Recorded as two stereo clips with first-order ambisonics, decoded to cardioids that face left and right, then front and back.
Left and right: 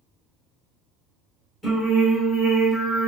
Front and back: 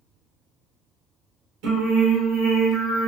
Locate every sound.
1.6 s singing: straight behind, 0.8 m